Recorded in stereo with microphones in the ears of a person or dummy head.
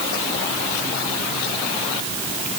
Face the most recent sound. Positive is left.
No sound to turn to.